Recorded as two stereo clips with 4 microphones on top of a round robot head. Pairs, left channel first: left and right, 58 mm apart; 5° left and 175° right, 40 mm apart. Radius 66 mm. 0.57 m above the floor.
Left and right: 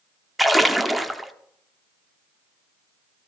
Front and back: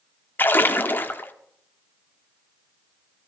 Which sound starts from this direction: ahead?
A splash, at 0.4 s.